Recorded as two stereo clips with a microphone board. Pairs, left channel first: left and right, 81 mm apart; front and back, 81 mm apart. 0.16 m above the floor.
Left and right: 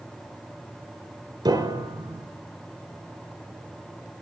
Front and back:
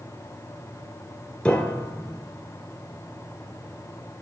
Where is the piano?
75° right, 1.1 m.